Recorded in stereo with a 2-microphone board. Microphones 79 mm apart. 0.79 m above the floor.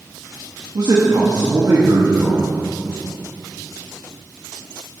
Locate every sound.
0.8 s a man speaking: 50° right (ahead or behind), 1.4 m